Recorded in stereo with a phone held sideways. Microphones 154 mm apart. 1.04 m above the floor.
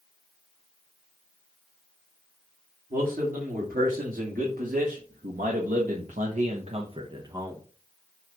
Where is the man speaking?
65° right (ahead or behind), 3 m; by 7.6 s 20° right (ahead or behind), 1.2 m.